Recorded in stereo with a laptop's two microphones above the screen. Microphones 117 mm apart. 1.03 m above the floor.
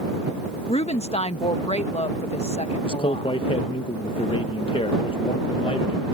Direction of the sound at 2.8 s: 50° left (ahead or behind).